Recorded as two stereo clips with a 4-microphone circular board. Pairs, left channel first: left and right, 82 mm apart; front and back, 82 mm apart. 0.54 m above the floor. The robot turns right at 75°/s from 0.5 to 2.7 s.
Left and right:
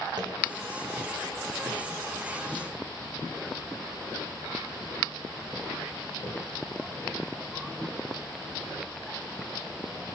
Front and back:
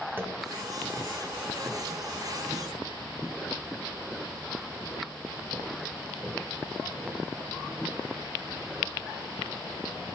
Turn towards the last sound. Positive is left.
turn(degrees=50)